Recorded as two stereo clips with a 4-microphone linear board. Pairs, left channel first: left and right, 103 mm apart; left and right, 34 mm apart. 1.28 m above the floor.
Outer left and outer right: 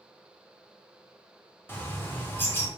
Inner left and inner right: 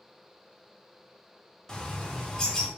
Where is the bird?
20° left (ahead or behind), 0.9 m.